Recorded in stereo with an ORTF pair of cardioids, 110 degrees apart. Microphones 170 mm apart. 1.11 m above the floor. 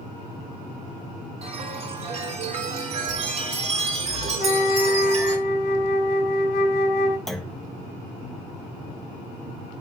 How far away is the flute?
About 3 m.